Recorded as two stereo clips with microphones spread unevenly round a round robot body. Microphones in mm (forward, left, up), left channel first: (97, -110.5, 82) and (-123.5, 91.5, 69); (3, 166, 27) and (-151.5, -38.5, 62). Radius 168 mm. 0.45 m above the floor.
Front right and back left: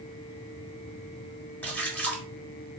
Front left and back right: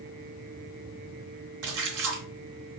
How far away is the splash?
About 1.4 m.